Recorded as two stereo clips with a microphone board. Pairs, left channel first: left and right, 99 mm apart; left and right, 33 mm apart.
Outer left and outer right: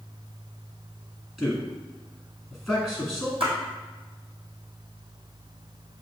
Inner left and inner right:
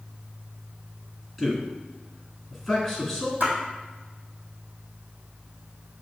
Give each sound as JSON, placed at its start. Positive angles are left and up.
{"t": 1.4, "sound": "a man speaking", "side_deg": 0, "distance_m": 1.7}
{"t": 3.4, "sound": "a splash", "side_deg": -70, "distance_m": 1.7}